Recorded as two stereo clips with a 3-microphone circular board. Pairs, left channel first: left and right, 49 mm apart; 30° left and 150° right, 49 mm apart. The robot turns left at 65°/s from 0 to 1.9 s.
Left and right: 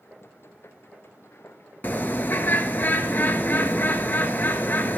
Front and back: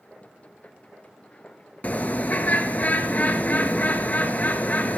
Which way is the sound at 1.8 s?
75° left.